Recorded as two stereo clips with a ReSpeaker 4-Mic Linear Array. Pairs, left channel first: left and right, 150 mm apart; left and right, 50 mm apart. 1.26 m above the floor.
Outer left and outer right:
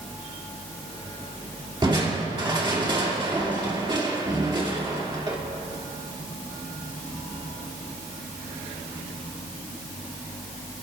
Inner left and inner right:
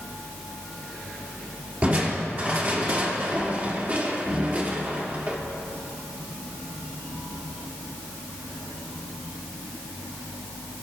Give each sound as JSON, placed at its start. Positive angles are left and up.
{"t": 1.8, "sound": "crushing", "side_deg": -30, "distance_m": 1.9}